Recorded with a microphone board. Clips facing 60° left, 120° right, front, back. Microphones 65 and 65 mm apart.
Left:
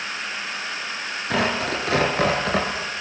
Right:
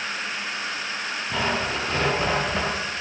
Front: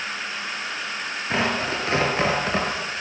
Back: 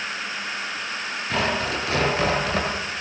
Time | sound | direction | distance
1.3 | tearing paper | 60° left | 6.5 m